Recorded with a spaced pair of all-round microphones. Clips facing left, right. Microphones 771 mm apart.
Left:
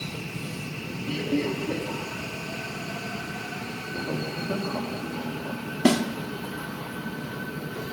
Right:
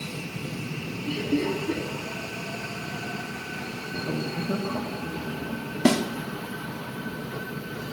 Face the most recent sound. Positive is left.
turn(degrees=0)  # may be behind; listen again after turning